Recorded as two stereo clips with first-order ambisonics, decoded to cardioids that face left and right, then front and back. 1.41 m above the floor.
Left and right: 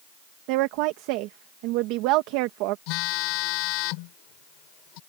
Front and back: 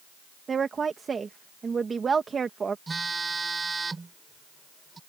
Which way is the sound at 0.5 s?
110° right.